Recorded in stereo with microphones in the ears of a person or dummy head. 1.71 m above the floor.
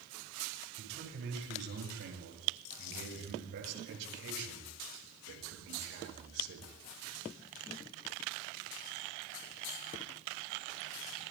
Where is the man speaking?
70° right (ahead or behind), 9 m; by 6.8 s 75° right (ahead or behind), 6 m.